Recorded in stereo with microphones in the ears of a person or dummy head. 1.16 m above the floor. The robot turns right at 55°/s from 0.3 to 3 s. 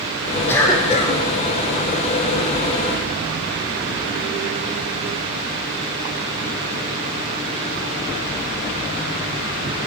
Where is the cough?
5° left, 0.6 m; by 1.2 s 45° left, 0.6 m.